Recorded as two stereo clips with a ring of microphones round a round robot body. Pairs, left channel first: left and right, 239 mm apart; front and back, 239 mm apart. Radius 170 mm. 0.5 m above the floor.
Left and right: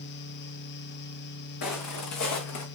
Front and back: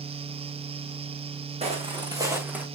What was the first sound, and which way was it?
Footsteps, 115° left.